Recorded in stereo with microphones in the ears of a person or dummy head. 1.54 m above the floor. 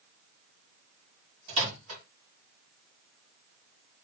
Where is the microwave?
85° right, 2.5 m.